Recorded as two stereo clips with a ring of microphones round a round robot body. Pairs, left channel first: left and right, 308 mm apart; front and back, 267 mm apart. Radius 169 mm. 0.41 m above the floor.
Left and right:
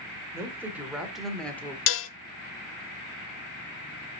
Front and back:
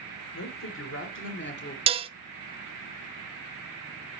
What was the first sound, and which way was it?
A woman speaking, 10° right.